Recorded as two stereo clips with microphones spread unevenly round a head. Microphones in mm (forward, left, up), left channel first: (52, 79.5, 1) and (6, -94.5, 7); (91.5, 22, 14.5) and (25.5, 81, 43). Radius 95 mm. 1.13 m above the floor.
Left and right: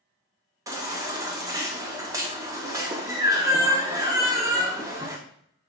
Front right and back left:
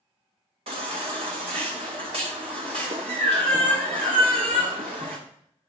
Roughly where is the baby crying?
Behind.